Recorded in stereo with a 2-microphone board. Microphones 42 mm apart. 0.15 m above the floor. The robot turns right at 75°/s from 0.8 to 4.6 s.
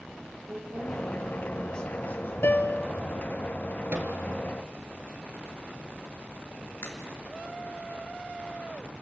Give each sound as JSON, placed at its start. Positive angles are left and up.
{"t": 0.5, "sound": "a woman speaking", "azimuth_deg": -55, "distance_m": 4.5}
{"t": 2.4, "sound": "a piano", "azimuth_deg": 80, "distance_m": 0.7}
{"t": 3.9, "sound": "a microwave", "side_deg": -50, "distance_m": 2.5}
{"t": 6.8, "sound": "a crack", "side_deg": 75, "distance_m": 3.0}